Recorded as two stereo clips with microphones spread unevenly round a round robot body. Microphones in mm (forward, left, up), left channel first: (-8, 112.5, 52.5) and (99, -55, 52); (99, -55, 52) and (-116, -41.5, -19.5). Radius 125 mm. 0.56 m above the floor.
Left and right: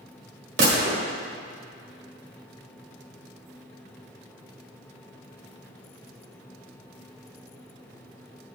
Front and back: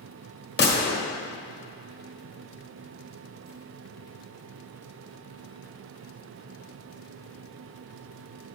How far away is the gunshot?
About 1.4 m.